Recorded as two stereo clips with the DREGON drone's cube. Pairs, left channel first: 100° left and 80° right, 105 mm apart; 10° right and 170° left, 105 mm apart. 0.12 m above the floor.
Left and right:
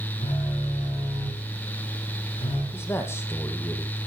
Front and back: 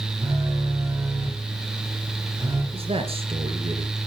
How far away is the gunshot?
No gunshot in this recording.